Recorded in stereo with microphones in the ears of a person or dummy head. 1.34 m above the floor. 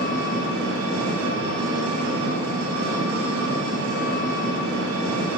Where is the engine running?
75° right (ahead or behind), 4 m.